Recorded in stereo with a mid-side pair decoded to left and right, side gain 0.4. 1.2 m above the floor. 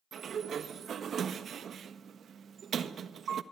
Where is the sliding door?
60° right, 1.3 m.